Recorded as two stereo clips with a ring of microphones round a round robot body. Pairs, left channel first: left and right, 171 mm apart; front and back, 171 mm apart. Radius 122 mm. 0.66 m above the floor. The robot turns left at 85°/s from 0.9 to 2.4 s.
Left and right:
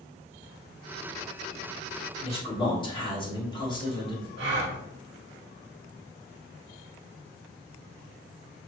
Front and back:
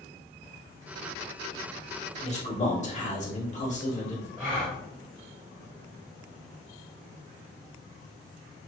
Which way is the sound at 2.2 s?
50° left.